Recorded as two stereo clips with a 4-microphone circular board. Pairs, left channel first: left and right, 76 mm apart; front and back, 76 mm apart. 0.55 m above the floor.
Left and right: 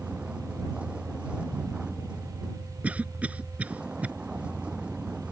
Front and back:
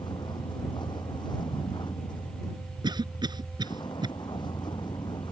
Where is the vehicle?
15° right.